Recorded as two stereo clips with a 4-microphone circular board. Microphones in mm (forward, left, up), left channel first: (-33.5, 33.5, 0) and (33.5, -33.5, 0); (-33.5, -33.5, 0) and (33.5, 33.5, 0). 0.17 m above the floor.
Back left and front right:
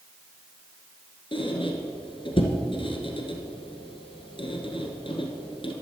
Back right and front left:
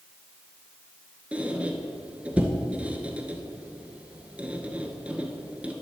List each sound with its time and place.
1.3 s a squeak: 120° left, 1.2 m